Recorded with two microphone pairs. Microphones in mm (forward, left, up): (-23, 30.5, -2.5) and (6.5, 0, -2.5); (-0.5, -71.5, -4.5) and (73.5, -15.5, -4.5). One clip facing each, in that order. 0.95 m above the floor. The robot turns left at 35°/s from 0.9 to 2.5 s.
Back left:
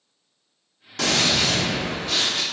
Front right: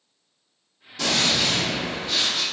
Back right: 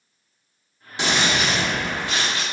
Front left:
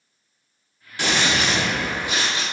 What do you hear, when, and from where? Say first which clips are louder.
1.0 s a gunshot: back left 1 dB, even; 150° left, 0.9 m; by 2.4 s 100° left, 0.9 m